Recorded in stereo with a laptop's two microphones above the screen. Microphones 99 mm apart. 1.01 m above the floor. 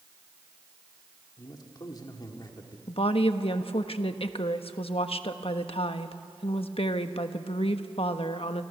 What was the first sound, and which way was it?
A man speaking, 45° left (ahead or behind).